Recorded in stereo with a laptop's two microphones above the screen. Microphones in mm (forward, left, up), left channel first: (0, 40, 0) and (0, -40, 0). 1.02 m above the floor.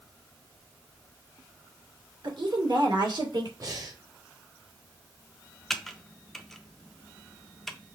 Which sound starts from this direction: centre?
Typing on a keyboard, at 5.7 s.